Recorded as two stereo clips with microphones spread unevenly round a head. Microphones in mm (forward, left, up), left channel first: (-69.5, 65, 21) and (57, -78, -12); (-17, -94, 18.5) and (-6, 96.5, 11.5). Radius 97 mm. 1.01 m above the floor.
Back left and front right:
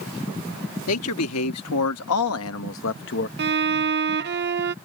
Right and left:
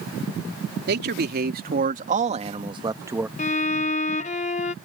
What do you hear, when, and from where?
0.9 s a man speaking: 120° left; by 3.3 s 165° left
3.4 s a violin: 60° right